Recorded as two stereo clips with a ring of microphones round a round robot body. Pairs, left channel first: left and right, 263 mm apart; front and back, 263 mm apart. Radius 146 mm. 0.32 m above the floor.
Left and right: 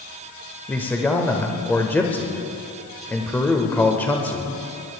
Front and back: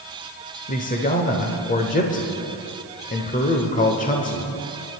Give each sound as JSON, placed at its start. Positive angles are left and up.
{"t": 0.7, "sound": "a man speaking", "azimuth_deg": 15, "distance_m": 1.0}